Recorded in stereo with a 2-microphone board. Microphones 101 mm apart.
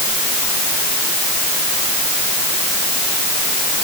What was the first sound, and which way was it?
Only background noise.